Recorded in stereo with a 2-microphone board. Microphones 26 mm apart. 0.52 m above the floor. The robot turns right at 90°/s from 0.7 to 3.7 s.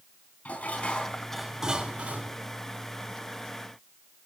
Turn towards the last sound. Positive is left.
turn(degrees=30)